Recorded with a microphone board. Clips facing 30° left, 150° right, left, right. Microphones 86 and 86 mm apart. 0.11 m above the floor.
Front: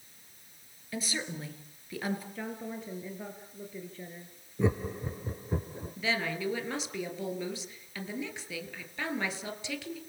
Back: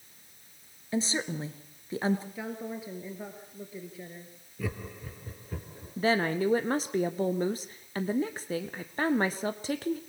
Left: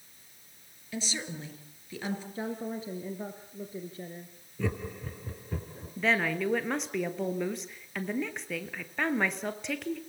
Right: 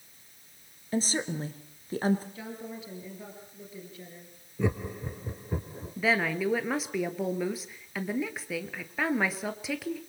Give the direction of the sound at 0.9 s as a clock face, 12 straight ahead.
4 o'clock.